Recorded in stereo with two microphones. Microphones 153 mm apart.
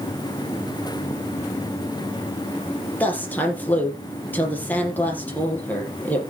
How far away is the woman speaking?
About 4 m.